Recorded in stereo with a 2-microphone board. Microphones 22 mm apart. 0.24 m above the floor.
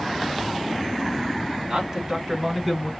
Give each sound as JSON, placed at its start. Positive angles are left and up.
{"t": 1.7, "sound": "a man speaking", "side_deg": -35, "distance_m": 1.8}